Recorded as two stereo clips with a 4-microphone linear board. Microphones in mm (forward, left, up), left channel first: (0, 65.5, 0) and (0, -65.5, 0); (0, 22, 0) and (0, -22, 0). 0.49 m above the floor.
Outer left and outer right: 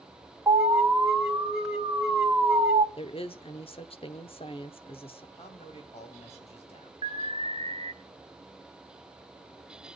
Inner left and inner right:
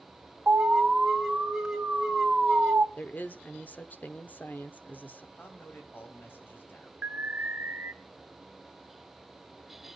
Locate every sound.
0.5 s an alarm: 5° right (ahead or behind), 3 m
3.0 s a woman speaking: 45° left (ahead or behind), 1.0 m
5.4 s a man speaking: 55° left (ahead or behind), 3.5 m
7.0 s an alarm: 50° right (ahead or behind), 1.0 m